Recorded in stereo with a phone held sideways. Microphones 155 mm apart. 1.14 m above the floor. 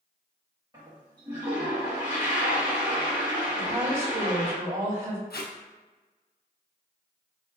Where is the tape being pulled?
80° left, 0.6 m.